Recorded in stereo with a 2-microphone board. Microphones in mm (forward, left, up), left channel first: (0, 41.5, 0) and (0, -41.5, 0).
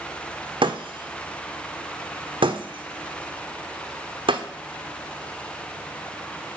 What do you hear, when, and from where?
0.6 s breaking glass: 85° right, 1.0 m